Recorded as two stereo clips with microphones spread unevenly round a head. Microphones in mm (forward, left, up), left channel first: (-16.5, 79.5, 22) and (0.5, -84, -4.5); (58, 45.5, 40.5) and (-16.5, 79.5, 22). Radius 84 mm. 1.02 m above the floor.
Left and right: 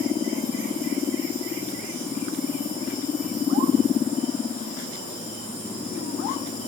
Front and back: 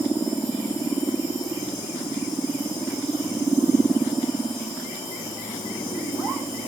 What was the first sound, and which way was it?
Only background noise.